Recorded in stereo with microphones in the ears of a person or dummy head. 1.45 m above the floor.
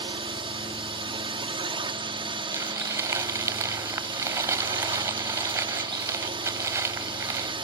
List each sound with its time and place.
0.0 s a drone: 30° right (ahead or behind)
2.5 s crumpling: 15° right (ahead or behind)